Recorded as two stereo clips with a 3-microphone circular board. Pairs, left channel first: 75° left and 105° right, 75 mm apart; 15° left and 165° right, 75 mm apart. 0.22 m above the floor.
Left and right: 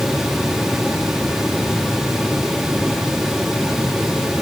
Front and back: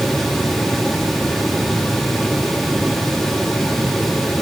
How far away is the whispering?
I don't hear whispering.